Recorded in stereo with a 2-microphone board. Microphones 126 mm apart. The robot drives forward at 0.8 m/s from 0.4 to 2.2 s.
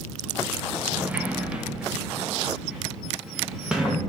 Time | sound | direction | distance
0.9 | a sliding door | 15° right (ahead or behind) | 0.7 m